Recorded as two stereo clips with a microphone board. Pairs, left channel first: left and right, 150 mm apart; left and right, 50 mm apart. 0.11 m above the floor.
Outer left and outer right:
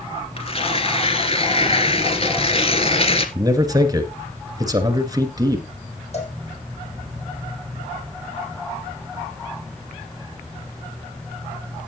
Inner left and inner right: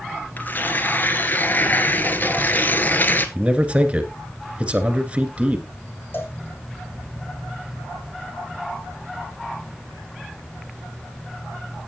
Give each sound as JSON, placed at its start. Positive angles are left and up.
{"t": 0.4, "sound": "tearing paper", "side_deg": 45, "distance_m": 1.5}
{"t": 3.4, "sound": "a man speaking", "side_deg": -25, "distance_m": 1.8}
{"t": 6.1, "sound": "a cowbell", "side_deg": 50, "distance_m": 3.0}